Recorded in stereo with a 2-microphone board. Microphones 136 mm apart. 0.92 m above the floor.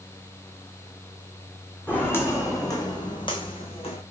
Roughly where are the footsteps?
Centre.